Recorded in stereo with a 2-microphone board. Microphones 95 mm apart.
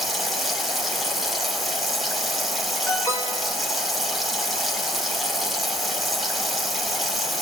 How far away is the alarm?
About 1.9 m.